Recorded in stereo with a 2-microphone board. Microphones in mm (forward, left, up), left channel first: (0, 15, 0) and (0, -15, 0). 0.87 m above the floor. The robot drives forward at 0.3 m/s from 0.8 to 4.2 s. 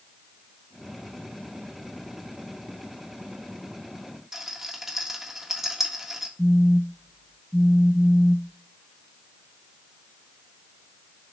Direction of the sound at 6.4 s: 40° right (ahead or behind).